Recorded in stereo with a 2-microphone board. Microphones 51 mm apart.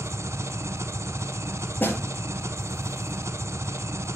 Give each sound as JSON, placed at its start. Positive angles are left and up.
{"t": 0.0, "sound": "an engine running", "side_deg": -70, "distance_m": 0.7}
{"t": 1.8, "sound": "a snare drum", "side_deg": 40, "distance_m": 4.5}